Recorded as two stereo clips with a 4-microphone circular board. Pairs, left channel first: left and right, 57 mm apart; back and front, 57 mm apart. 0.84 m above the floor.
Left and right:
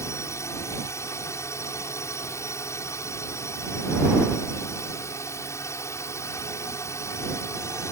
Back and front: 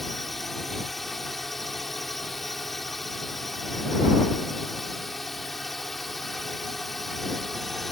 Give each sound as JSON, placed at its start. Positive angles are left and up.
{"t": 0.0, "sound": "a drone", "azimuth_deg": 95}